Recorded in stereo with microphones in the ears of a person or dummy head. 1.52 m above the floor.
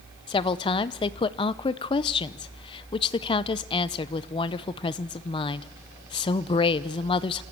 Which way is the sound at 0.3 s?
25° left (ahead or behind).